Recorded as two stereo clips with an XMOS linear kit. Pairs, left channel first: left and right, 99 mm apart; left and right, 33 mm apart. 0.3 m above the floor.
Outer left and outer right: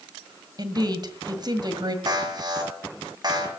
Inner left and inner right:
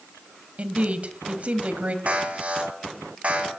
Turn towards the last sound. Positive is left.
turn(degrees=-45)  # may be behind; listen again after turning